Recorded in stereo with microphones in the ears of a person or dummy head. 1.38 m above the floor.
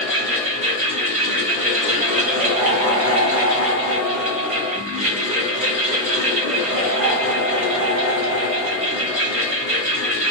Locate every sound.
0.0 s a fan: 35° right (ahead or behind), 1.0 m